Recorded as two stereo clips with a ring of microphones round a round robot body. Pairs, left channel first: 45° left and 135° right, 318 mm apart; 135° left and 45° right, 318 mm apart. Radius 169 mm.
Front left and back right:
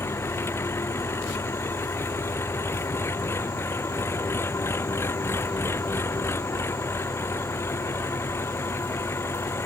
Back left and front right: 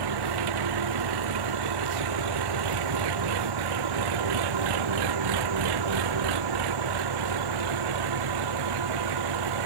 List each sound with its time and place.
0.0 s an engine running: 40° right